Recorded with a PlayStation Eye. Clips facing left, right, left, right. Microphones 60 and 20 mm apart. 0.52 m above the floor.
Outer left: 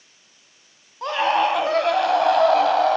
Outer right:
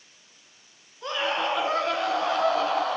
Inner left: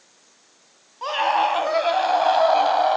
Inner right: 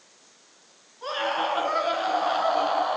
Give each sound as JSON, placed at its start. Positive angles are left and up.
{"t": 1.0, "sound": "a scream", "side_deg": 75, "distance_m": 4.0}